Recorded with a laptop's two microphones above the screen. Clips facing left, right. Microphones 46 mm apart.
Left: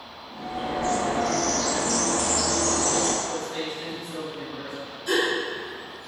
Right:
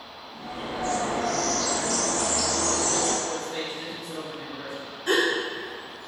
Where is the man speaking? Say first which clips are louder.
Left 1 dB; centre (ahead or behind), 1.6 m.